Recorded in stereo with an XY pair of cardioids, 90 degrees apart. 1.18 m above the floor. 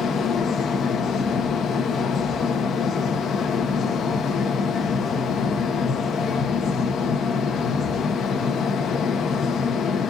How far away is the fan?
About 1.1 m.